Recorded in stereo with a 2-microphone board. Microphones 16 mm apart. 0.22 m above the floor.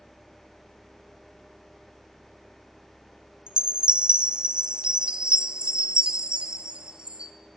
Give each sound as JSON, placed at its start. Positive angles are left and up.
{"t": 3.5, "sound": "a chime", "side_deg": -70, "distance_m": 1.0}